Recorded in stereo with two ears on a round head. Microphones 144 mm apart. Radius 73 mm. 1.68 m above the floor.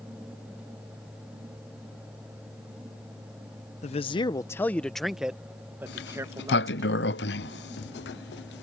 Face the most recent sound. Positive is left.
turn(degrees=70)  # may be behind; listen again after turning